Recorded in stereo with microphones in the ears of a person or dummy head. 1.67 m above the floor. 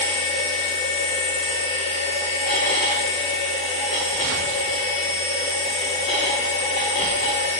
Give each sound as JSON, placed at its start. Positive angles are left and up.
{"t": 0.0, "sound": "a machine running", "side_deg": 30, "distance_m": 0.9}